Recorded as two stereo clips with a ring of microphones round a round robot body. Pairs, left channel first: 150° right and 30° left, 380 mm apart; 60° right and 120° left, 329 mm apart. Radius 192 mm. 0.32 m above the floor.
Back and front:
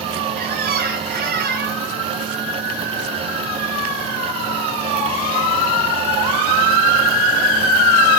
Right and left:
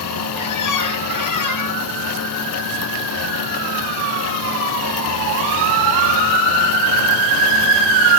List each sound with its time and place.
0.4 s a squeak: 35° right, 1.8 m